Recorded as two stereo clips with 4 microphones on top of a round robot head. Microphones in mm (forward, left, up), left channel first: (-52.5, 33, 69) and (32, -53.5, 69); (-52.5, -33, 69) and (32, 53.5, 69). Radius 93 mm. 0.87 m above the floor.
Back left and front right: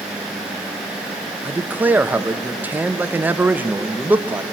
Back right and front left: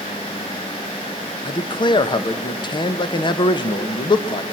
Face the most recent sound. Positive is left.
turn(degrees=-115)